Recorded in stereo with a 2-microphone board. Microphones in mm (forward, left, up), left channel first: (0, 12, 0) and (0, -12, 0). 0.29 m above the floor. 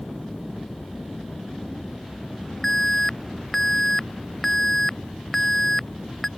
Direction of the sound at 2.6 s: 10° left (ahead or behind).